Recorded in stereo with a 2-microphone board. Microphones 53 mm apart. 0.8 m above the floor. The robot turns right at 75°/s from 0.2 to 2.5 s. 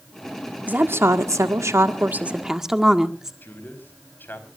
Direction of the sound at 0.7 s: 145° right.